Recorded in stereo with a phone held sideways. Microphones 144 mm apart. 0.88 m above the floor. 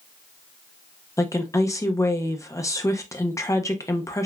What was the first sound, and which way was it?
A woman speaking, 20° left (ahead or behind).